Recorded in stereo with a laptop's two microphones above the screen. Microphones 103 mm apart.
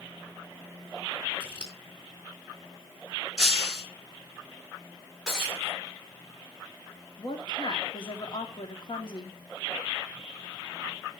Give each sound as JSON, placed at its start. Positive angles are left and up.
{"t": 1.4, "sound": "scissors", "side_deg": 55, "distance_m": 2.5}
{"t": 3.4, "sound": "breaking glass", "side_deg": -5, "distance_m": 4.0}
{"t": 5.3, "sound": "breaking glass", "side_deg": 0, "distance_m": 7.0}
{"t": 7.2, "sound": "a woman speaking", "side_deg": 50, "distance_m": 3.0}